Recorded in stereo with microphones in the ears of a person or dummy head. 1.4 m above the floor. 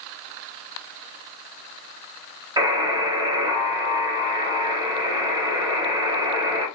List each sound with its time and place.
2.6 s a buzzer: 20° right (ahead or behind), 1.6 m